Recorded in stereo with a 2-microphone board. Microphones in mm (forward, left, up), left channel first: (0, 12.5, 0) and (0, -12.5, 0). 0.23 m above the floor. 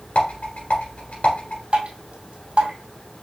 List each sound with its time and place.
0.1 s a rattle: 65° left (ahead or behind), 2.5 m
1.7 s dripping: 50° right (ahead or behind), 1.7 m